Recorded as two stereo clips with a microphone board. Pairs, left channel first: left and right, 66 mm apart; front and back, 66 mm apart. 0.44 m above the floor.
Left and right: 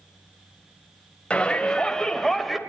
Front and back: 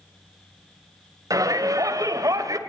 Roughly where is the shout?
Behind.